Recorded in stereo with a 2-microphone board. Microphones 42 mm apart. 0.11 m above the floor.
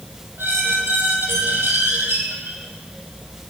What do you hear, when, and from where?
0.4 s a squeak: 65° right (ahead or behind), 1.9 m